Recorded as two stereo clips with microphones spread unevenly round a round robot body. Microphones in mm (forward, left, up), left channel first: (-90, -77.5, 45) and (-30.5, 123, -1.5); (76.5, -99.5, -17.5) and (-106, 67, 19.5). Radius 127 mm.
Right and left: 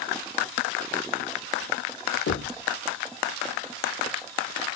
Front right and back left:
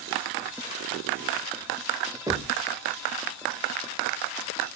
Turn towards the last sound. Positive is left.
turn(degrees=-140)